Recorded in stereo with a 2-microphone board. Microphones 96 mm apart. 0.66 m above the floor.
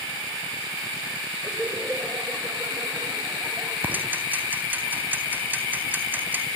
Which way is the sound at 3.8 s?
20° right (ahead or behind).